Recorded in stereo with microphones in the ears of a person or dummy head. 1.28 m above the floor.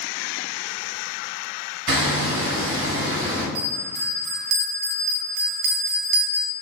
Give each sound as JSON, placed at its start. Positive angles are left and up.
{"t": 1.9, "sound": "hammering", "side_deg": -70, "distance_m": 1.7}
{"t": 3.5, "sound": "a bell", "side_deg": -55, "distance_m": 0.8}